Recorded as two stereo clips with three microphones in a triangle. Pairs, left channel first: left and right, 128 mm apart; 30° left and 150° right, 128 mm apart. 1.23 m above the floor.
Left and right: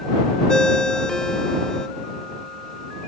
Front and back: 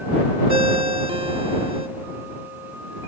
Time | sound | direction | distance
0.5 | a ringtone | 175° left | ?